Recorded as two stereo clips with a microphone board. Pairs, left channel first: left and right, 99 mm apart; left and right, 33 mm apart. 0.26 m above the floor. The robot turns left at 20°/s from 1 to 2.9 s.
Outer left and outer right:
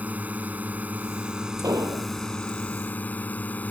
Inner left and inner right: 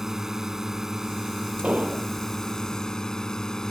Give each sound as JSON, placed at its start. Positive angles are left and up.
{"t": 0.0, "sound": "a drone", "azimuth_deg": -160}
{"t": 1.6, "sound": "an explosion", "side_deg": -40}